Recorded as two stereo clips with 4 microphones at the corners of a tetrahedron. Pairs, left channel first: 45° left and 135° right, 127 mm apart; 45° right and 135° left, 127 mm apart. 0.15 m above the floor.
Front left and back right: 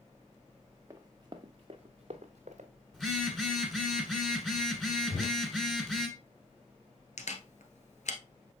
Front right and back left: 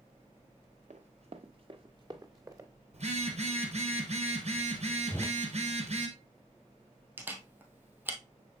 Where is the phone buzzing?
130° left, 1.6 m.